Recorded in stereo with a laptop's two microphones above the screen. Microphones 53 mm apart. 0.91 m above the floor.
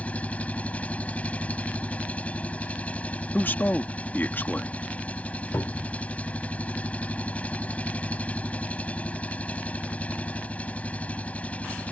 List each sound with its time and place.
0.0 s an engine running: 30° left (ahead or behind)
3.3 s a man speaking: 40° left (ahead or behind)
5.5 s a cupboard door: 65° left (ahead or behind)